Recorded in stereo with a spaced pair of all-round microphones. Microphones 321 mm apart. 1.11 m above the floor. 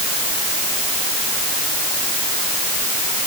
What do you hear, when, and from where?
Only background noise.